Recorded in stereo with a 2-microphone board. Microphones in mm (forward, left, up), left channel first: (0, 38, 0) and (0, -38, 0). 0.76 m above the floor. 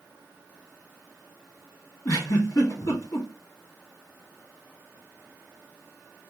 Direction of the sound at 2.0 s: 45° left (ahead or behind).